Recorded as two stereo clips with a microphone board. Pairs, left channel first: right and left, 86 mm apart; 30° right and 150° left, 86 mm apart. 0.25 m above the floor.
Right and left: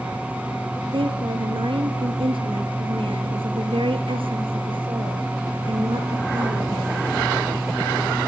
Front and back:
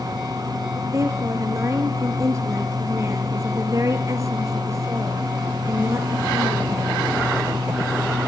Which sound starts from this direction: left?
A woman speaking, at 0.9 s.